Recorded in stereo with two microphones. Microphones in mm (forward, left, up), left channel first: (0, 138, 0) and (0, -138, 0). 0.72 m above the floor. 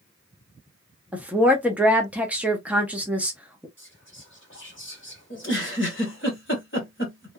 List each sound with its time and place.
1.1 s a woman speaking: 5° right (ahead or behind), 0.7 m
3.8 s whispering: 45° left (ahead or behind), 1.9 m
5.3 s a giggle: 45° left (ahead or behind), 1.3 m